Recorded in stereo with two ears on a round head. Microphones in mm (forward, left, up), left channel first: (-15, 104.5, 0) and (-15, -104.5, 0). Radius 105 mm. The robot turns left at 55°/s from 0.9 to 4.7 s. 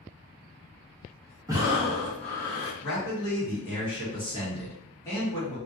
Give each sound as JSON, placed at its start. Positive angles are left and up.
{"t": 1.5, "sound": "breathing", "azimuth_deg": -150, "distance_m": 0.8}
{"t": 2.8, "sound": "a man speaking", "azimuth_deg": 115, "distance_m": 1.4}